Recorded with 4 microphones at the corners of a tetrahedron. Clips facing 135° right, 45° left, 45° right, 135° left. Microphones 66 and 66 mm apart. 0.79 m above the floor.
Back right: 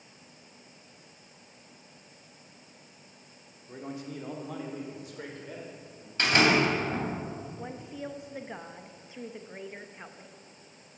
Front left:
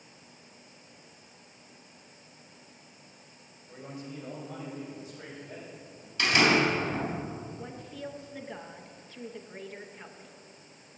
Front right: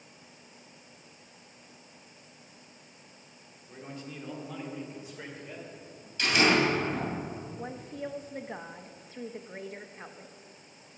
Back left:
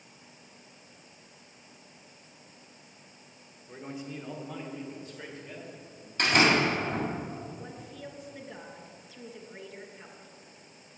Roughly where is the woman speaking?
Ahead right.